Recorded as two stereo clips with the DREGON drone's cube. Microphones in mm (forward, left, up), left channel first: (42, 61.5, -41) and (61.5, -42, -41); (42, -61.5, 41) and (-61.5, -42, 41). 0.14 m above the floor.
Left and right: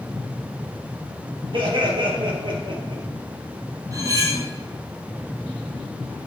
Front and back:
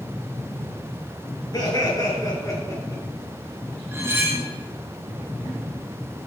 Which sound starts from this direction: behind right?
Cutlery clinking, at 3.9 s.